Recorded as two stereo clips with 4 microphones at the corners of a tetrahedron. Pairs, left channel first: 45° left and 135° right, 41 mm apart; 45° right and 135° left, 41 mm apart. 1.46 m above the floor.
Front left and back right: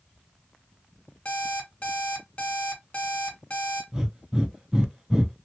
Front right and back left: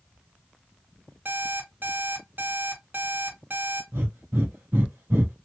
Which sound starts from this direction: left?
An alarm clock, at 1.2 s.